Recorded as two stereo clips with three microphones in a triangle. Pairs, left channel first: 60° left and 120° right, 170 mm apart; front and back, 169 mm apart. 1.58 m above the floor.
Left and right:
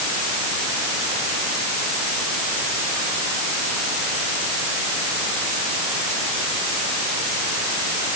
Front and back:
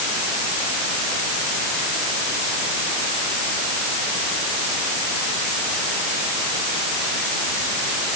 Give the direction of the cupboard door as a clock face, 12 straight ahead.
No cupboard door in this recording.